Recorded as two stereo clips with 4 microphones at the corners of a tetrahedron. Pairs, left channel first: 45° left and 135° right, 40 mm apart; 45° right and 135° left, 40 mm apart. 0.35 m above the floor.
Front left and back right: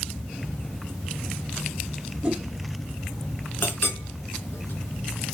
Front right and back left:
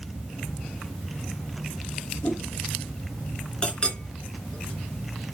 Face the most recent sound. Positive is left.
turn(degrees=15)